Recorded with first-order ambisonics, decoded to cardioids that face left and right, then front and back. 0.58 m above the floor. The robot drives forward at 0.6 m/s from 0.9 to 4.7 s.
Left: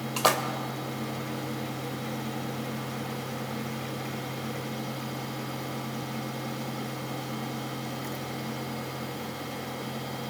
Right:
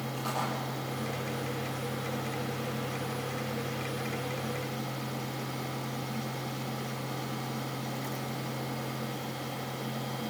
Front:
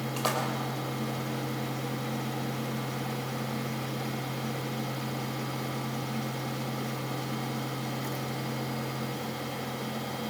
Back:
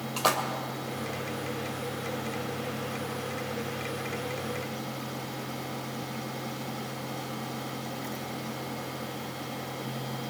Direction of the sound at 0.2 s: 105° left.